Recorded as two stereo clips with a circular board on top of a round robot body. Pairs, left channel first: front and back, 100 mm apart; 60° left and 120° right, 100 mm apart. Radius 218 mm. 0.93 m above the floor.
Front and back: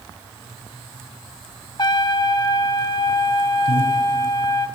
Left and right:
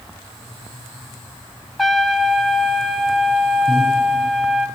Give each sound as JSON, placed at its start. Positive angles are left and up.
{"t": 1.8, "sound": "a trumpet", "azimuth_deg": -30, "distance_m": 1.2}
{"t": 3.7, "sound": "breathing", "azimuth_deg": -20, "distance_m": 4.5}